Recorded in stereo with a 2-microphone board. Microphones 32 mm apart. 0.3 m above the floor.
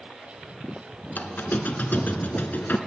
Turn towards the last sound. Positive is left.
turn(degrees=75)  # may be behind; listen again after turning